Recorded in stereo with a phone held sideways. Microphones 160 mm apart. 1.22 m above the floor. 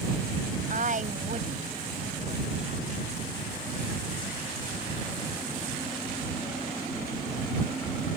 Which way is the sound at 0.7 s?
55° right (ahead or behind).